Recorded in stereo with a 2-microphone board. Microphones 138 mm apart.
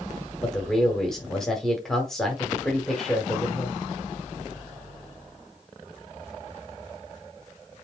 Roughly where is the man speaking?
Centre.